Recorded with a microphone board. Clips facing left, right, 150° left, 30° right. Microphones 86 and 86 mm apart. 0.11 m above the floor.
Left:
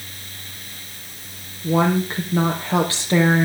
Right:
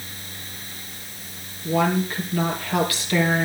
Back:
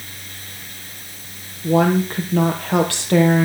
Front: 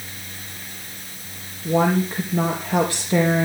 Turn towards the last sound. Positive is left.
turn(degrees=150)